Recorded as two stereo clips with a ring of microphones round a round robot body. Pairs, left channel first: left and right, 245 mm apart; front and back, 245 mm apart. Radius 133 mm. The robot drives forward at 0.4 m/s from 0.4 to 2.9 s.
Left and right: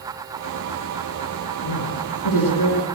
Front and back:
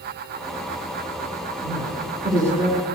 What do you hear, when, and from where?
1.6 s a woman speaking: 100° left, 6.5 m; by 2.9 s 105° left, 6.5 m